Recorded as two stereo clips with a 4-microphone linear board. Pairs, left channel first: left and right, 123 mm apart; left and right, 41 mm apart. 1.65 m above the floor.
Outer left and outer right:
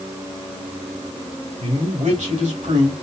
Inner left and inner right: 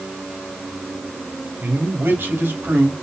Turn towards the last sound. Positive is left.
turn(degrees=-70)  # may be behind; listen again after turning